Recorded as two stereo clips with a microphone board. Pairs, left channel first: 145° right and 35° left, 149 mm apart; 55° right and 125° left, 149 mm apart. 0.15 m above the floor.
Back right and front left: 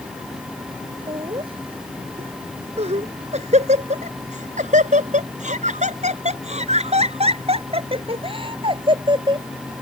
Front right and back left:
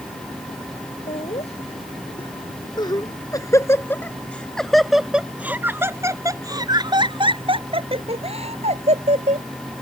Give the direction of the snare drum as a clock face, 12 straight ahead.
No snare drum in this recording.